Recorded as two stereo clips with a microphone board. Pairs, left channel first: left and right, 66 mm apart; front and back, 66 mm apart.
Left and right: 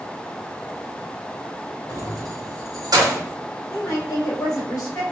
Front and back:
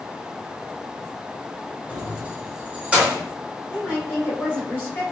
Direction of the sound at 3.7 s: 60° left.